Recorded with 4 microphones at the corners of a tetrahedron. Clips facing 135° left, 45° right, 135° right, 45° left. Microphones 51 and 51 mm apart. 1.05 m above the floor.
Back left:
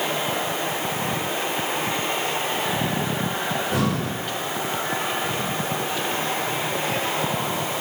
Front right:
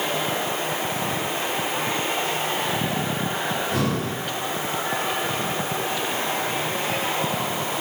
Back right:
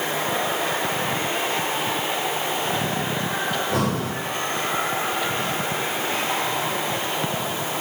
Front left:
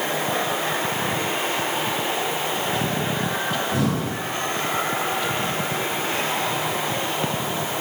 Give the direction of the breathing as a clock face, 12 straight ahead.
5 o'clock.